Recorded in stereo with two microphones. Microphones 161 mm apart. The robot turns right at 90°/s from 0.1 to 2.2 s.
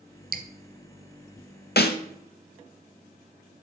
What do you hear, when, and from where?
0.3 s dripping: 70° right (ahead or behind), 0.8 m; by 0.5 s 55° right (ahead or behind), 0.8 m
1.8 s a snare drum: 85° left, 0.8 m; by 2.0 s 75° left (ahead or behind), 0.8 m